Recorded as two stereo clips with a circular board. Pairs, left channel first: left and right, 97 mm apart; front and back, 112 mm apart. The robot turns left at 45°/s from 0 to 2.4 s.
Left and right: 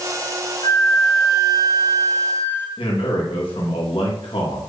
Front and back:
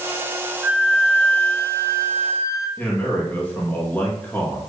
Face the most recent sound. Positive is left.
turn(degrees=75)